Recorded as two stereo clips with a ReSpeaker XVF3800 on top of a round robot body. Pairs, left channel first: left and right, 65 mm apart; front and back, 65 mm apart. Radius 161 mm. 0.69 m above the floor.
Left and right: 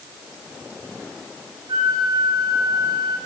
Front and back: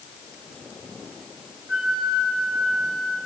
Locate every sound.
1.7 s a flute: 100° right, 4 m